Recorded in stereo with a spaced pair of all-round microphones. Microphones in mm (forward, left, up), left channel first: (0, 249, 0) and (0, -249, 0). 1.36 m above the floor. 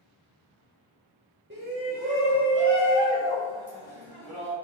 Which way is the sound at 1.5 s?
25° right (ahead or behind).